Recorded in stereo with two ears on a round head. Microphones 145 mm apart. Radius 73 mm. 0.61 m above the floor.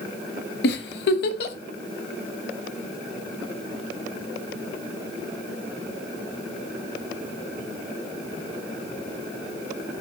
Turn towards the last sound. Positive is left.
turn(degrees=70)  # may be behind; listen again after turning